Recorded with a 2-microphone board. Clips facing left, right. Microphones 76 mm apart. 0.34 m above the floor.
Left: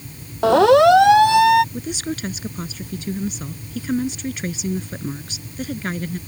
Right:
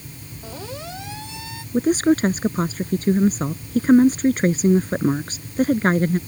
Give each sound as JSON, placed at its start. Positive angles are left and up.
{"t": 0.4, "sound": "a siren", "side_deg": 80}
{"t": 1.7, "sound": "a woman speaking", "side_deg": -45}